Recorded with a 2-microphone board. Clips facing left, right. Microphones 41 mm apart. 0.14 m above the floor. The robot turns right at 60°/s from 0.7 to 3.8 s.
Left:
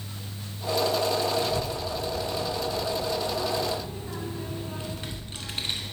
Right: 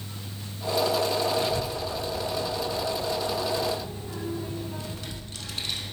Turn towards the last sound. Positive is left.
turn(degrees=30)  # may be behind; listen again after turning